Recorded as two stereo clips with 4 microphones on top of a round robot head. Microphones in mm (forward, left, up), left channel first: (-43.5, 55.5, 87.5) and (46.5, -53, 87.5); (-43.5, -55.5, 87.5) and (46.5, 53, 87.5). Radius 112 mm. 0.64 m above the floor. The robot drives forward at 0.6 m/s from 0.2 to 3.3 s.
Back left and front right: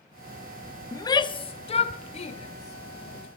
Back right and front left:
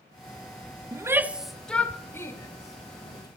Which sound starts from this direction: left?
A shout, at 0.9 s.